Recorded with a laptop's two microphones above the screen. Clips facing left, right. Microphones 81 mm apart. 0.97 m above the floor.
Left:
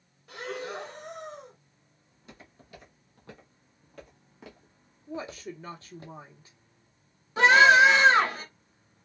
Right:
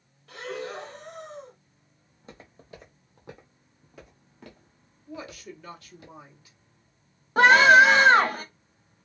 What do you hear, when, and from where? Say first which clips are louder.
0.3 s breathing: right 1 dB; 10° left (ahead or behind), 0.7 m
2.1 s footsteps: right 3 dB; 35° right (ahead or behind), 2.0 m; by 6.1 s 35° left (ahead or behind), 1.5 m
5.1 s a woman speaking: left 3 dB; 30° left (ahead or behind), 0.9 m
7.4 s a scream: right 2 dB; 45° right (ahead or behind), 1.2 m